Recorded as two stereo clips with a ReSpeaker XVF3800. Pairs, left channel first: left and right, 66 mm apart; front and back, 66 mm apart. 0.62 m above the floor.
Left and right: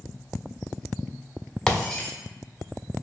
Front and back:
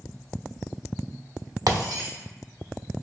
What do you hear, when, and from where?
1.7 s breaking glass: 170° left, 0.9 m